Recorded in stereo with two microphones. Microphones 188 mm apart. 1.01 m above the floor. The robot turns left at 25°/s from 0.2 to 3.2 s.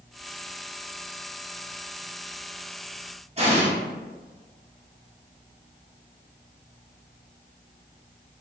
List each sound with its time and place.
3.4 s an explosion: 35° right (ahead or behind), 0.9 m